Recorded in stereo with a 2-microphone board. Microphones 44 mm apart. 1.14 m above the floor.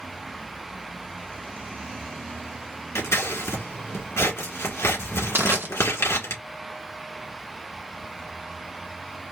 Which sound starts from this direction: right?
Crushing, at 5.3 s.